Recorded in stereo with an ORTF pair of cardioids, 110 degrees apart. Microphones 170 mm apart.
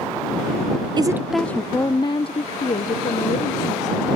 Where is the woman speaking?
30° right; by 4.1 s 50° left.